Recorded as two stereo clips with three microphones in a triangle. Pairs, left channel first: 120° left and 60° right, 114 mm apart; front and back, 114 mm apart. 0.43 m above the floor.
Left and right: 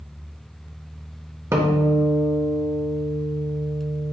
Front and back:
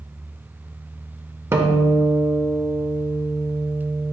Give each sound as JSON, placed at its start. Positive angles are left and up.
{"t": 1.5, "sound": "a guitar", "azimuth_deg": -115, "distance_m": 0.7}